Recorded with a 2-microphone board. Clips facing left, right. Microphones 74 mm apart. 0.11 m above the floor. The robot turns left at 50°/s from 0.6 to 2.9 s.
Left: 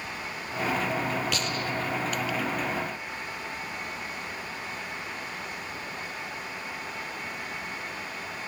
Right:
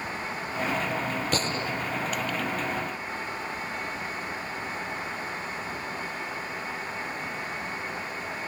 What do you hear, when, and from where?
1.3 s a gunshot: 40° right (ahead or behind); by 2.5 s 15° left (ahead or behind)